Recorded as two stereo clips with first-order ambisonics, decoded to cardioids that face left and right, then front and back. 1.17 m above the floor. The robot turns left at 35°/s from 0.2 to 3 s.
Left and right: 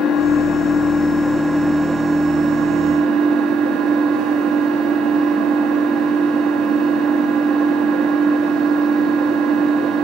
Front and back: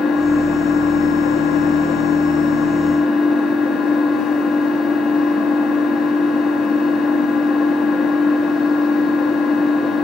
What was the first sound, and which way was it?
An engine running, 45° left.